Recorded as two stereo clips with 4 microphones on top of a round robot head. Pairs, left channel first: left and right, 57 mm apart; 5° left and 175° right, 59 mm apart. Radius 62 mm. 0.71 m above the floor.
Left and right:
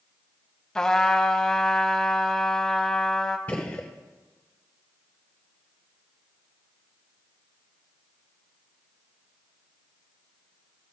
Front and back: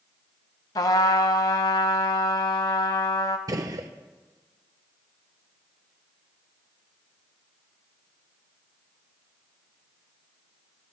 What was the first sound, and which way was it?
A trumpet, 10° left.